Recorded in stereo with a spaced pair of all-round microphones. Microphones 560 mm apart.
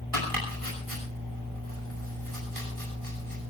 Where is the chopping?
70° right (ahead or behind), 10 m.